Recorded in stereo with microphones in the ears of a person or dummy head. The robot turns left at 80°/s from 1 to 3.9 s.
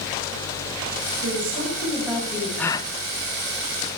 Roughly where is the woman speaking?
Right.